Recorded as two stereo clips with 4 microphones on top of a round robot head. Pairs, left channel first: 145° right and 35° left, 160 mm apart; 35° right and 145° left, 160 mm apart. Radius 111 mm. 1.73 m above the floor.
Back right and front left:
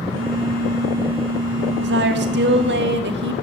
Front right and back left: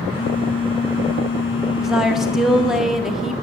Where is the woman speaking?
60° left, 1.4 m.